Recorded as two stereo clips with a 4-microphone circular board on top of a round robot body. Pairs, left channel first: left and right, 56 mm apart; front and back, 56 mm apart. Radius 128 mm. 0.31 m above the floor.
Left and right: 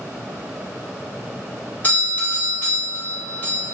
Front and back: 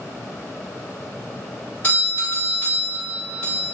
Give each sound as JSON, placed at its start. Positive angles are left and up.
{"t": 1.8, "sound": "a doorbell", "azimuth_deg": 45, "distance_m": 1.7}